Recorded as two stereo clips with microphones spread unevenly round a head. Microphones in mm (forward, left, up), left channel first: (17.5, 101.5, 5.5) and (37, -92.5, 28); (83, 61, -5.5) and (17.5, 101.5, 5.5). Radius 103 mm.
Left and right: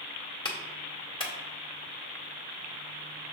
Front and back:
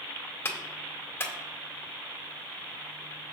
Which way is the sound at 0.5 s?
30° left.